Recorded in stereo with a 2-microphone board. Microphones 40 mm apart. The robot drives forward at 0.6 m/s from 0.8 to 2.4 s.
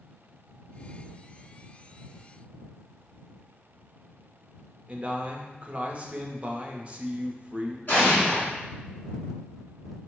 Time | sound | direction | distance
4.9 | a man speaking | 30° right (ahead or behind) | 0.6 m
7.9 | an explosion | 45° left (ahead or behind) | 2 m